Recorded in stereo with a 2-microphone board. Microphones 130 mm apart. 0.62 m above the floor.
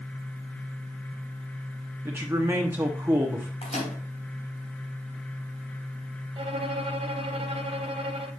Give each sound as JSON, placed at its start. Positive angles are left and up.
{"t": 2.0, "sound": "a man speaking", "side_deg": -20, "distance_m": 1.0}
{"t": 3.6, "sound": "a microwave", "side_deg": 60, "distance_m": 3.5}
{"t": 6.4, "sound": "a violin", "side_deg": -50, "distance_m": 0.8}